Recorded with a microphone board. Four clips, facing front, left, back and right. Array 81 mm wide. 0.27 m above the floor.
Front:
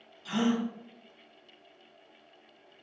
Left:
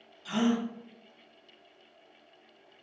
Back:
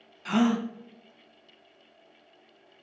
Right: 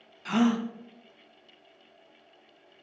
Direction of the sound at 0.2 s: 140° right.